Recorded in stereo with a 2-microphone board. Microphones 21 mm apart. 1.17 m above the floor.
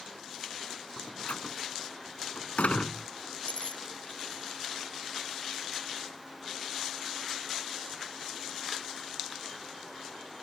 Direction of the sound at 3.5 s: 85° left.